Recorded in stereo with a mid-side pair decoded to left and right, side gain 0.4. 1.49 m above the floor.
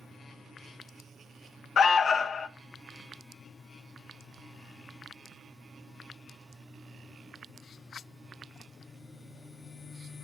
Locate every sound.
1.8 s an alarm: 55° left, 0.5 m